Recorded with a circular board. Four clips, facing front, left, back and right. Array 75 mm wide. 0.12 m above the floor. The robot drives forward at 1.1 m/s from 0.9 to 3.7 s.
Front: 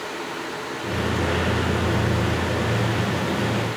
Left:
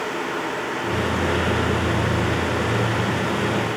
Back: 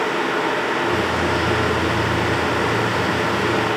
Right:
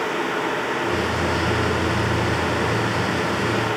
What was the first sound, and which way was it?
Only background noise.